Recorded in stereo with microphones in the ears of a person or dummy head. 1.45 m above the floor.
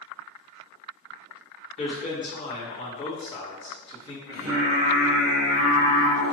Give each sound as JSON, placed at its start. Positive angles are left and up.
{"t": 1.8, "sound": "a man speaking", "side_deg": 30, "distance_m": 1.4}
{"t": 4.3, "sound": "singing", "side_deg": -20, "distance_m": 1.0}